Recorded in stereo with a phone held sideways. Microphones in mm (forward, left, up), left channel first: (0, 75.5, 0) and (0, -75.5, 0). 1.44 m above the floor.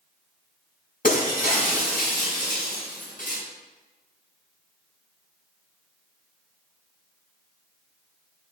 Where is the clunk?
I don't hear a clunk.